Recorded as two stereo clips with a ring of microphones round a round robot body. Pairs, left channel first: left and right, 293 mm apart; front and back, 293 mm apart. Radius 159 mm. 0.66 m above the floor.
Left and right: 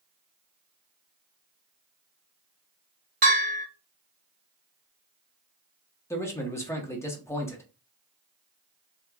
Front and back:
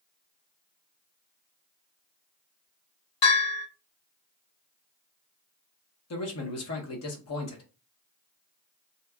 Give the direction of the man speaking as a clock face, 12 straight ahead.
12 o'clock.